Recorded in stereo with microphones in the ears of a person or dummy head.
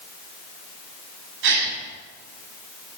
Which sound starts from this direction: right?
A gasp, at 1.4 s.